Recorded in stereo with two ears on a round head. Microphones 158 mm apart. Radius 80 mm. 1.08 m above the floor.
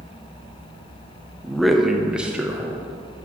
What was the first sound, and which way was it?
A man speaking, centre (ahead or behind).